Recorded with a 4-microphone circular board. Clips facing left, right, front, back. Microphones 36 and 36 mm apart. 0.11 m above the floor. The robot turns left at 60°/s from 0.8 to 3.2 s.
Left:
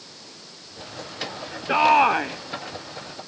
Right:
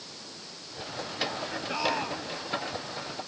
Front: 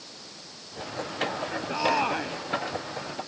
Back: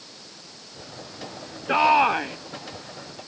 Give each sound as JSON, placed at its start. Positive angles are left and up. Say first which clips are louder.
{"t": 1.7, "sound": "a shout", "louder": "left 15 dB, back 8 dB", "azimuth_deg": 140}